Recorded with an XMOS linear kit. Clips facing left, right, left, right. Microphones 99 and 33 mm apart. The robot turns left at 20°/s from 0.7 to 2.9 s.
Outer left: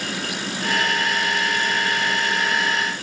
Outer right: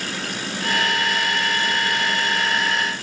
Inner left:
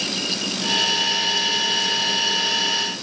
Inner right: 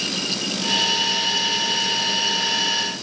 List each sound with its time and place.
Only background noise.